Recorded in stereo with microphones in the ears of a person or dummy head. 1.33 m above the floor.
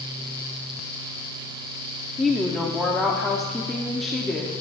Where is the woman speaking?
5° left (ahead or behind), 0.5 m.